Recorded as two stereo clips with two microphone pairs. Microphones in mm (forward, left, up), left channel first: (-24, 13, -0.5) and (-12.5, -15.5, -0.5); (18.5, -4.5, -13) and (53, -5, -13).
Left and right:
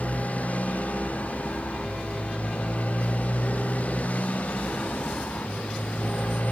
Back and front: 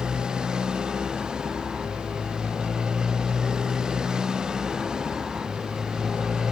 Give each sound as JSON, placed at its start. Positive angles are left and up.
{"t": 0.0, "sound": "a motorcycle", "azimuth_deg": 70}